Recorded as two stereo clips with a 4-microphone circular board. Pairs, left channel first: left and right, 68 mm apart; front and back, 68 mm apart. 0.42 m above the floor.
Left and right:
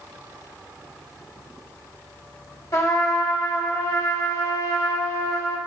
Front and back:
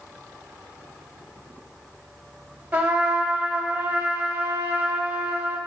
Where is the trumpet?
115° left, 1.3 m.